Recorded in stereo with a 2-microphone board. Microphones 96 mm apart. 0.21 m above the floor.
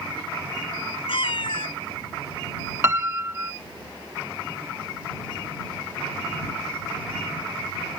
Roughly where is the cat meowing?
Left.